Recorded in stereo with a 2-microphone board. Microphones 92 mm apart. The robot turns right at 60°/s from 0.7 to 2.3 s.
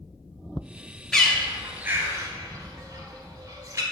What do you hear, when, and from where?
1.1 s a bird: 5° left (ahead or behind), 0.7 m; by 3.8 s 35° right (ahead or behind), 0.7 m